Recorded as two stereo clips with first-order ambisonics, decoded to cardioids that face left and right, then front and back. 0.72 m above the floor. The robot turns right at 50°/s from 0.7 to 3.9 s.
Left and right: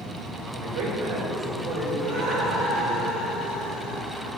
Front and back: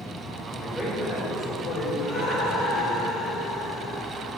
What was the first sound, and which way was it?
A man speaking, 90° right.